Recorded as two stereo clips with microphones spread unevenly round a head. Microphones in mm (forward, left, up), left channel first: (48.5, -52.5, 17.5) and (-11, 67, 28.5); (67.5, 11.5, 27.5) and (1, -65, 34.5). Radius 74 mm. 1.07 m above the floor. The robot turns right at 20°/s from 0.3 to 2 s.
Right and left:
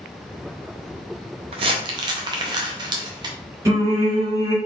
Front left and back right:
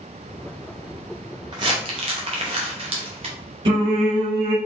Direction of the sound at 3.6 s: 175° right.